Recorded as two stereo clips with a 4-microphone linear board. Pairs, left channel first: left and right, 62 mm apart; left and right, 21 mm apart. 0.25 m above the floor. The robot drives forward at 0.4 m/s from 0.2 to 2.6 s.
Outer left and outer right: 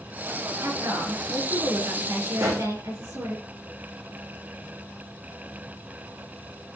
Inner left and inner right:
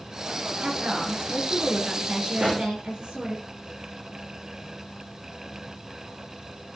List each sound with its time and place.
0.6 s a woman speaking: 70° right (ahead or behind), 4 m
2.4 s a pop: 65° right (ahead or behind), 3.5 m